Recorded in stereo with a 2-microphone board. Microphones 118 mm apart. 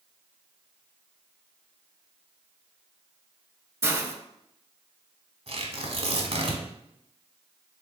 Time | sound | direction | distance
3.8 | a hiss | 20° right (ahead or behind) | 0.5 m
5.5 | tearing paper | 55° right (ahead or behind) | 0.9 m